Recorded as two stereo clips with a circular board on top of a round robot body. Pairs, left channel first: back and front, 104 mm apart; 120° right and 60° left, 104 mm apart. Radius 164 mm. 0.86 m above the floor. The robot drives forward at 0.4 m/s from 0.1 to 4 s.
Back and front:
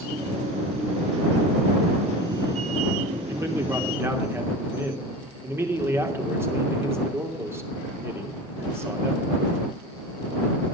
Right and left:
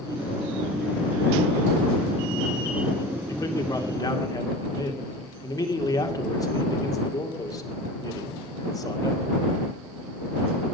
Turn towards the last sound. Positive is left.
turn(degrees=-65)